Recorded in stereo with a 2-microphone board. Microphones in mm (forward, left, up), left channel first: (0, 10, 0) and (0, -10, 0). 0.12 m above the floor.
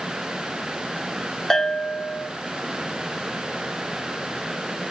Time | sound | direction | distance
1.5 | a bell | 20° left (ahead or behind) | 0.5 m